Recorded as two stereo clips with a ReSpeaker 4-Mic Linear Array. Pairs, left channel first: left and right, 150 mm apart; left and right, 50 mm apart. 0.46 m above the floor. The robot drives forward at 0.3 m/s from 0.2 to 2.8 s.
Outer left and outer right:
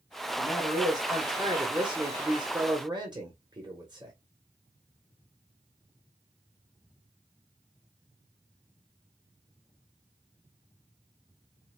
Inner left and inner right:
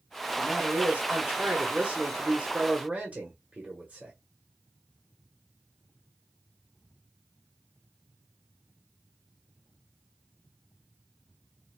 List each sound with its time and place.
0.4 s a man speaking: 25° right (ahead or behind), 1.2 m; by 4.1 s 30° right (ahead or behind), 1.0 m